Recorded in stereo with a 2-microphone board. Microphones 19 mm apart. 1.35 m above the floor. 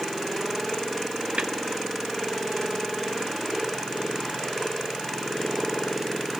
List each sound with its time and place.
1.4 s a snare drum: 70° right (ahead or behind), 1.5 m